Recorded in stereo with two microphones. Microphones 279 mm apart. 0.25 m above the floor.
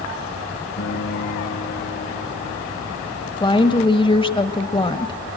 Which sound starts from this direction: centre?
A woman speaking, at 3.4 s.